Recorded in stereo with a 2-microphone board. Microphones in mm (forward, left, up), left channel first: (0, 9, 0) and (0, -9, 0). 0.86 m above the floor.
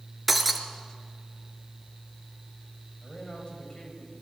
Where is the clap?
I don't hear a clap.